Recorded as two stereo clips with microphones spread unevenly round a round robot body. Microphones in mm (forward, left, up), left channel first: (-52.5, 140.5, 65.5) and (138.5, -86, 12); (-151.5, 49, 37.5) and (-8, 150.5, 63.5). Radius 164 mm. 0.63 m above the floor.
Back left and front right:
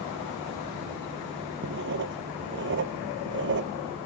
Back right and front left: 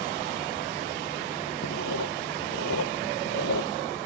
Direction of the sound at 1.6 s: 110° right.